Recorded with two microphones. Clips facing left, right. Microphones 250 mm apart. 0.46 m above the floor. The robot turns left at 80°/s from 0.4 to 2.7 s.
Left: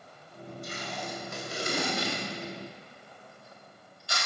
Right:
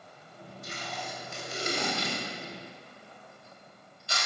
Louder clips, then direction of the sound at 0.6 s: Left 2 dB; 35° left (ahead or behind).